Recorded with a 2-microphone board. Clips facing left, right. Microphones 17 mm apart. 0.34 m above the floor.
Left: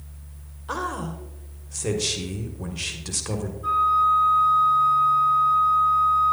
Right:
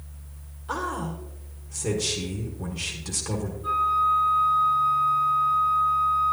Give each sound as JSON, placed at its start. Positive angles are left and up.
{"t": 0.7, "sound": "a man speaking", "side_deg": 20, "distance_m": 1.1}
{"t": 3.6, "sound": "a flute", "side_deg": 65, "distance_m": 5.5}